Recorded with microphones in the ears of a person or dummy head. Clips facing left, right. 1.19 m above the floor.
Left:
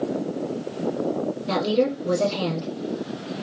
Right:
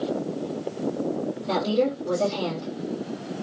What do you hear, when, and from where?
1.5 s a woman speaking: 30° left (ahead or behind), 1.8 m